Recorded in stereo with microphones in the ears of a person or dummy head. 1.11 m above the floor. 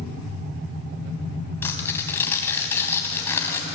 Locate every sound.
1.6 s tearing paper: 10° left (ahead or behind), 3 m